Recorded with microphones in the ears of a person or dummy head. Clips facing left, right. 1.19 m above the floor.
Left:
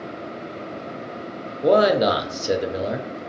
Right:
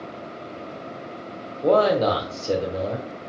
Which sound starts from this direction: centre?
A man speaking, at 1.6 s.